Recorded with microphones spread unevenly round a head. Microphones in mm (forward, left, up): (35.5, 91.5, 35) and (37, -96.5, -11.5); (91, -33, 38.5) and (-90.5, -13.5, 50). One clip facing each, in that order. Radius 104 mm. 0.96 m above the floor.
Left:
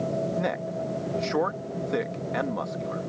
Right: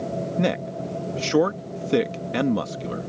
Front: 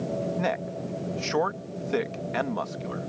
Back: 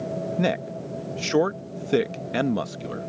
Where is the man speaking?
135° right.